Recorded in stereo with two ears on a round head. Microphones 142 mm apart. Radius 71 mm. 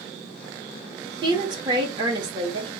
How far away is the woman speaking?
About 1.0 m.